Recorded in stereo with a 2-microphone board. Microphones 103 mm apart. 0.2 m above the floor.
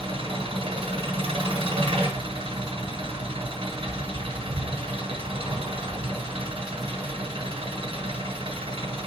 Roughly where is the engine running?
Right.